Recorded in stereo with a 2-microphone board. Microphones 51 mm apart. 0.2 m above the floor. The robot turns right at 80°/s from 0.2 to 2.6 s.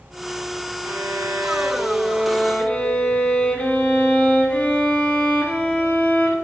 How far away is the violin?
About 2.5 m.